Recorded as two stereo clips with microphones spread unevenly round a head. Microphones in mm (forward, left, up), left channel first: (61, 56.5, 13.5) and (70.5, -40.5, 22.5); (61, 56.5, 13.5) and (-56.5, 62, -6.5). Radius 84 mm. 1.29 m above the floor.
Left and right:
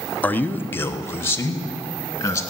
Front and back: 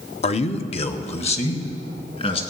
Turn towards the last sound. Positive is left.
turn(degrees=35)